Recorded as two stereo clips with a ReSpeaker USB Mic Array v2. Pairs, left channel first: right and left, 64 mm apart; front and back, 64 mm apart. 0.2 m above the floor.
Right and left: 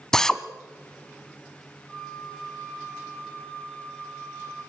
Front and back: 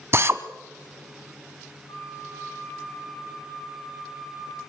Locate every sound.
0.1 s a drill: 170° right, 1.0 m
1.9 s a flute: 10° right, 8.5 m